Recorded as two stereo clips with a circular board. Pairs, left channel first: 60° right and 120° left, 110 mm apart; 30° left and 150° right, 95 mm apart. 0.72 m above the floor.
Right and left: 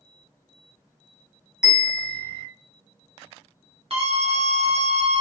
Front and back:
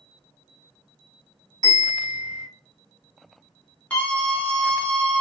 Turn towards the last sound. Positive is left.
turn(degrees=105)